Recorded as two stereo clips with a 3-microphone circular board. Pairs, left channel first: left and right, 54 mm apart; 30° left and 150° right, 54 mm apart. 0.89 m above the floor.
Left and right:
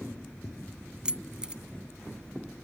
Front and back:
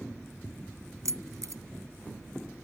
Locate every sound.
1.1 s keys jangling: 165° right